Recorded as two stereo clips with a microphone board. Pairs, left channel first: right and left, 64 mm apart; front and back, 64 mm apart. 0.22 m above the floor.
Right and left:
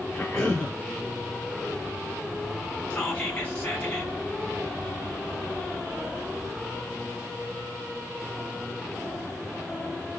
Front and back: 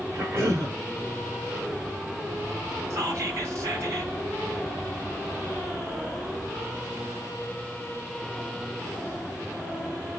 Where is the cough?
155° right, 2.5 m.